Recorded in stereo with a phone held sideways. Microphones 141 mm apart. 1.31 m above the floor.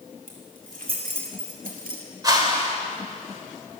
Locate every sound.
0.3 s keys jangling: 85° right, 3 m; by 2.0 s 80° right, 2 m
2.2 s a whoosh: 30° right (ahead or behind), 2.0 m